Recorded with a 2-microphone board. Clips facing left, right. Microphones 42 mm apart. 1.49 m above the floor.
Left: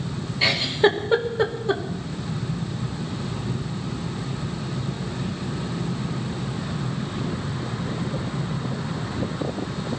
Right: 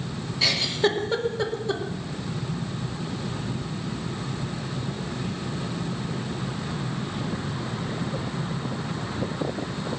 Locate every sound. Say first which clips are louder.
0.4 s a giggle: left 4 dB; 20° left (ahead or behind), 2 m